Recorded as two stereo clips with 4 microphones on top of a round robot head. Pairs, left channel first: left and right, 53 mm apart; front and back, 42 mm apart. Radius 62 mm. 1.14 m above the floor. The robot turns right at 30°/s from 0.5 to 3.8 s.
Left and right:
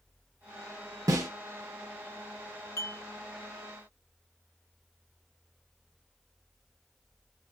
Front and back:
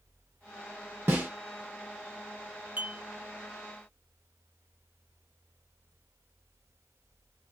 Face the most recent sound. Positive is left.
turn(degrees=160)